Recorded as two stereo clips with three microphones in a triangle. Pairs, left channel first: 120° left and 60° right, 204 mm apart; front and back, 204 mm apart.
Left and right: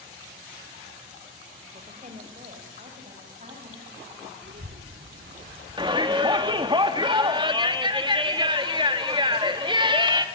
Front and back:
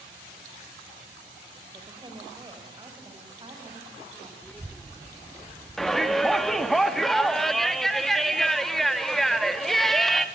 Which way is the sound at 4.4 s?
85° right.